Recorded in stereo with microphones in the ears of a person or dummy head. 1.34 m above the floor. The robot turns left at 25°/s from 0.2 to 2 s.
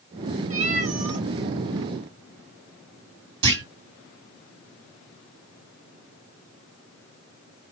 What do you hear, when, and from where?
0.5 s a cat meowing: 40° right (ahead or behind), 2.5 m; by 1.3 s 55° right (ahead or behind), 2.5 m
3.4 s a clunk: 70° right (ahead or behind), 2 m